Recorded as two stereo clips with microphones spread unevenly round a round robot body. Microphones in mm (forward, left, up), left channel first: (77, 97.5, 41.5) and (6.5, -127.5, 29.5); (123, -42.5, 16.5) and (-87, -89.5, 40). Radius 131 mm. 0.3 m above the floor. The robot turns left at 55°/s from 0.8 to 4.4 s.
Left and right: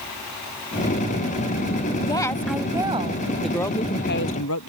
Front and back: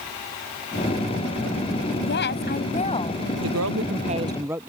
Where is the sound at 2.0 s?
10° left; by 3.2 s 60° right.